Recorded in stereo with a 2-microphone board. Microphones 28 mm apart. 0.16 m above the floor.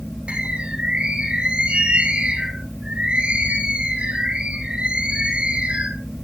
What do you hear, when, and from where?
0.3 s a bird: 45° right (ahead or behind), 2.5 m